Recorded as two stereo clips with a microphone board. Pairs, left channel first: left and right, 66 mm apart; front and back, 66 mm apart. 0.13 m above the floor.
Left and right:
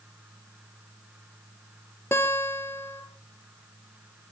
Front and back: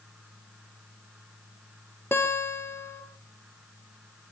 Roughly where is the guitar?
Ahead left.